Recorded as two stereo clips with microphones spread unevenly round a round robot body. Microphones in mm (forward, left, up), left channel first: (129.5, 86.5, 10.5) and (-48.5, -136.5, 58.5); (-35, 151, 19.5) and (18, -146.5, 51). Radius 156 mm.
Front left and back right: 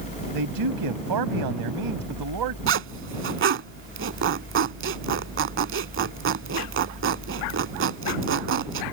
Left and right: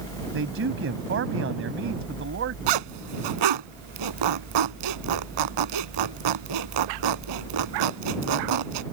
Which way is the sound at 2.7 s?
80° right.